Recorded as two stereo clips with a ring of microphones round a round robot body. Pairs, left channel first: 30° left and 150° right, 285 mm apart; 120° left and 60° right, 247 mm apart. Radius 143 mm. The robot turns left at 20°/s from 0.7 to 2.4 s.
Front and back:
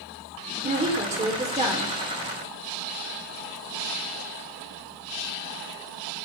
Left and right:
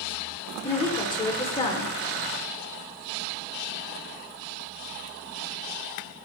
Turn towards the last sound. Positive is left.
turn(degrees=150)